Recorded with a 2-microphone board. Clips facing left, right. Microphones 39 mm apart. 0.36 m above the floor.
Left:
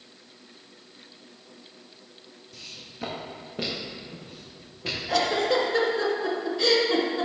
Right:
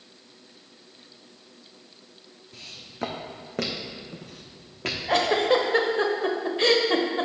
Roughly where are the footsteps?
Right.